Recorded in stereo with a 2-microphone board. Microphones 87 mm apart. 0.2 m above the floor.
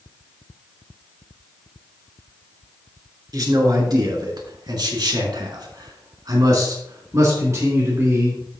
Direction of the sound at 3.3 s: 50° right (ahead or behind).